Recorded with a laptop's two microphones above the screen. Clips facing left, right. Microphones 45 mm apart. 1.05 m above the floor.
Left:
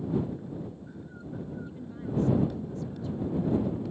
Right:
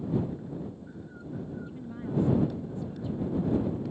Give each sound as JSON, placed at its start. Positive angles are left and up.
{"t": 1.6, "sound": "a woman speaking", "side_deg": -15}